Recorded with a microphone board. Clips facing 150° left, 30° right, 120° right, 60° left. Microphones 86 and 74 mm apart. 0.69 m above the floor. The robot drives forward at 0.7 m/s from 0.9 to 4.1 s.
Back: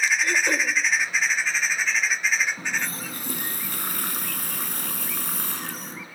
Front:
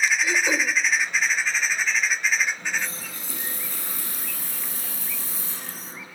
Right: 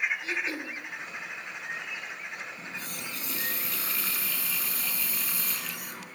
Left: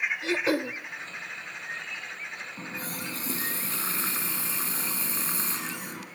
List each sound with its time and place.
0.2 s throat clearing: 55° left, 1.1 m
2.6 s a running tap: 110° left, 4.5 m; by 6.0 s 120° left, 5 m